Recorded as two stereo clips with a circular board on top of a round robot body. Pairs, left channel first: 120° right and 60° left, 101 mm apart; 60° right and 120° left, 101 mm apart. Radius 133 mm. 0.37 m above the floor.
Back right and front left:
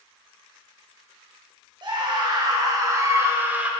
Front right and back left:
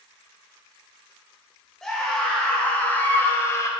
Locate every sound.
1.8 s a scream: 25° left, 2 m; by 3.7 s 10° right, 1.4 m